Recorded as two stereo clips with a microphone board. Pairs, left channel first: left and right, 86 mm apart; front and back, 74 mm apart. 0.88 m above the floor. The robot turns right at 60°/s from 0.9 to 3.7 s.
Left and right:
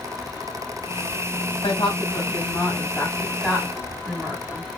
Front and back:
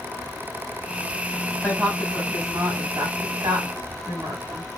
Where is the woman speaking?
75° left, 5 m; by 4.7 s 160° right, 5 m.